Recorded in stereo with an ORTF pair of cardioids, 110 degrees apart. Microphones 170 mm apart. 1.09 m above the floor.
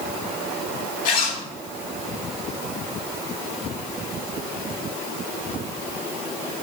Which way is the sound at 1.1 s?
55° left.